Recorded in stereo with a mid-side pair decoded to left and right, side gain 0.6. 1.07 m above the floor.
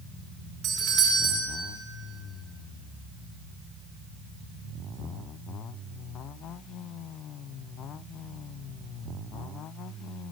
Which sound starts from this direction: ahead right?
A doorbell, at 0.6 s.